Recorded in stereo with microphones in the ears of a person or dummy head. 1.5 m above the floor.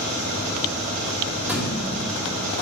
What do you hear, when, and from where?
0.0 s an engine running: 50° right (ahead or behind), 1.9 m
1.5 s a thud: 10° right (ahead or behind), 1.4 m